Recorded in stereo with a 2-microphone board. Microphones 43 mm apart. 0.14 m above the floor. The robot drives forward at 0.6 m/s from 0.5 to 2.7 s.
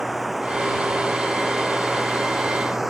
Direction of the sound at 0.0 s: 5° right (ahead or behind).